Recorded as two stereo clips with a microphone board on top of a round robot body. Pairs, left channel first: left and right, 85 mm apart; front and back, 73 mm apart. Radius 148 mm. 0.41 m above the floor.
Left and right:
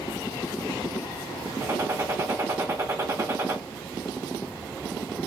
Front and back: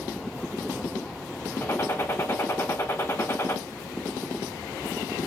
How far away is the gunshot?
About 1.7 m.